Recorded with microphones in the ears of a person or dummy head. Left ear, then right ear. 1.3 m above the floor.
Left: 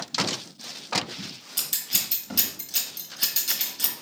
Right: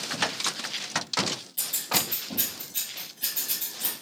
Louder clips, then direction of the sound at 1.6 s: Left 1 dB; 50° left (ahead or behind).